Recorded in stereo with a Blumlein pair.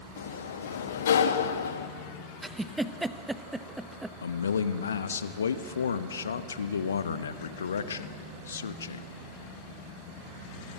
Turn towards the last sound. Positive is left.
turn(degrees=70)